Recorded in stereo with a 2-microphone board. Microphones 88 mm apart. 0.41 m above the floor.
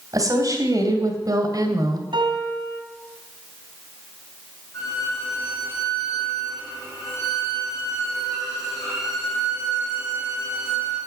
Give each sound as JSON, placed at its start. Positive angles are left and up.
{"t": 0.1, "sound": "a woman speaking", "side_deg": -40, "distance_m": 3.0}
{"t": 2.1, "sound": "a piano", "side_deg": -65, "distance_m": 2.5}
{"t": 4.7, "sound": "a violin", "side_deg": 35, "distance_m": 7.0}